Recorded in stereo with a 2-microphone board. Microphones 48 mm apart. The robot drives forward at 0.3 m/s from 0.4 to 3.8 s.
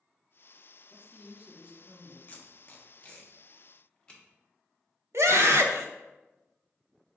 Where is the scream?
75° right (ahead or behind), 0.7 m.